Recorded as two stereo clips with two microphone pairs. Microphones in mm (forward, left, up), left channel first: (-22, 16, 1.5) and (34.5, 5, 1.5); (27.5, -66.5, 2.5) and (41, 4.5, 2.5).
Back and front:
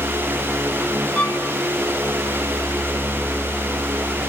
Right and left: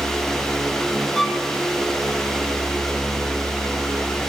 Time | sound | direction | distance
1.1 | a violin | 175° left | 1.4 m